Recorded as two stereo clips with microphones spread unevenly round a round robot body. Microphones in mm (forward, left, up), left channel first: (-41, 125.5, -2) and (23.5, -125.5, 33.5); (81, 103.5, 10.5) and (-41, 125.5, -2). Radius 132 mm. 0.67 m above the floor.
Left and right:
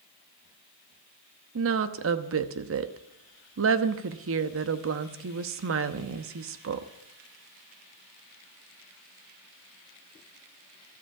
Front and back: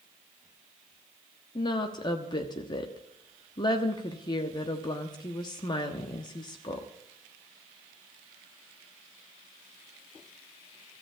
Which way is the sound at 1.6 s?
60° right.